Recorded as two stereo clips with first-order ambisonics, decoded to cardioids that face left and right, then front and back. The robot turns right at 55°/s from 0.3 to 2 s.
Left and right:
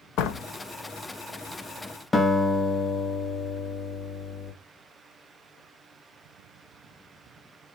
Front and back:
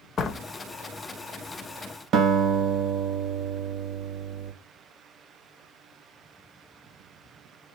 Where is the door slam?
60° left, 0.5 m; by 0.5 s 70° left, 0.5 m.